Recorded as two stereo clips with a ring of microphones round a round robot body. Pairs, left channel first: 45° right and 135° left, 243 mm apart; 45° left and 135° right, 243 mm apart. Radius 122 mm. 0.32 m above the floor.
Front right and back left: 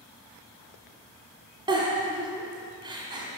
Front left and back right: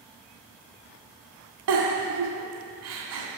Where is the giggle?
155° right, 1.8 m.